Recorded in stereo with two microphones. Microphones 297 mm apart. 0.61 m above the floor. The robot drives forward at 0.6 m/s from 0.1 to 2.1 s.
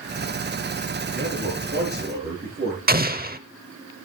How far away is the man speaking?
About 8 m.